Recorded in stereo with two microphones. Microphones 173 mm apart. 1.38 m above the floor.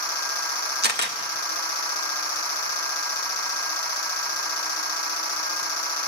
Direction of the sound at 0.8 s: 75° right (ahead or behind).